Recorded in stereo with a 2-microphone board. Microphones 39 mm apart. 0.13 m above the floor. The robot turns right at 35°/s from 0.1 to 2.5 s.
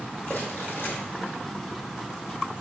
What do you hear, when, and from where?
0.3 s crumpling: 45° left (ahead or behind), 2 m; by 0.9 s 65° left (ahead or behind), 2 m